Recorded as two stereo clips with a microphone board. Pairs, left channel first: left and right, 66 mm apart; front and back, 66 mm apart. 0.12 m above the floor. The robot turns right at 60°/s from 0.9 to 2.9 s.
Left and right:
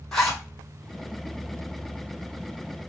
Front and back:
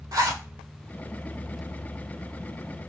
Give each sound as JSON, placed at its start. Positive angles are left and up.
{"t": 0.1, "sound": "a zipper", "azimuth_deg": 170, "distance_m": 1.4}